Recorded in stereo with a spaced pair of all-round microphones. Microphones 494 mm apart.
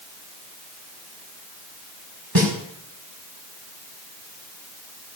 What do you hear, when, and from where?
2.4 s a snare drum: 50° right (ahead or behind), 4.5 m